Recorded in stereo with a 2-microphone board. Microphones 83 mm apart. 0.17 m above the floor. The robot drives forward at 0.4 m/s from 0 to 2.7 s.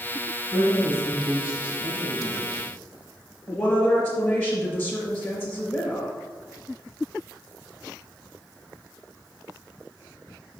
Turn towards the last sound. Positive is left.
turn(degrees=25)  # may be behind; listen again after turning